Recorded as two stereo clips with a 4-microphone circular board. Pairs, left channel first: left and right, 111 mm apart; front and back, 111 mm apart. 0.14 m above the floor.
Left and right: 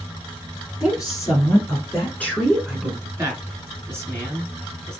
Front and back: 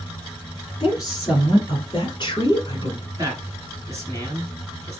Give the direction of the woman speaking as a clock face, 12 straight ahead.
10 o'clock.